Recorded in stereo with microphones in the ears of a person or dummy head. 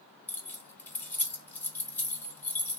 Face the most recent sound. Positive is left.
turn(degrees=10)  # may be behind; listen again after turning